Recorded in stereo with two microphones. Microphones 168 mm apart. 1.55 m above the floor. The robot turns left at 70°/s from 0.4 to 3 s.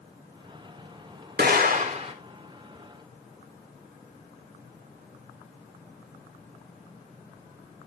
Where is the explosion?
95° right, 3.5 m; by 2.1 s 150° right, 3.5 m.